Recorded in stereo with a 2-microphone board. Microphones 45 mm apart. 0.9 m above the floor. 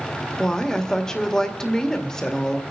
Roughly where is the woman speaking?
Centre.